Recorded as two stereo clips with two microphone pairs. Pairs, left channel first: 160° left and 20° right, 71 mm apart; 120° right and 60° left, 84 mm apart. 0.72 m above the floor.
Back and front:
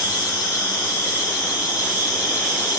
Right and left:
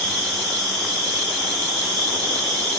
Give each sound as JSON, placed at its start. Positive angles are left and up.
{"t": 0.0, "sound": "an insect", "azimuth_deg": -50, "distance_m": 1.5}